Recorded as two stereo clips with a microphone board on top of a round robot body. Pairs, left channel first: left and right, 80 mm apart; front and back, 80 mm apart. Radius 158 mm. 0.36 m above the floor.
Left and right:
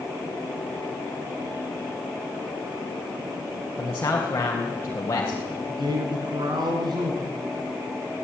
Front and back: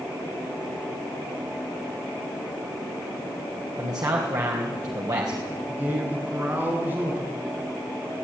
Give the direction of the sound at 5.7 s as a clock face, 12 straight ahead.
4 o'clock.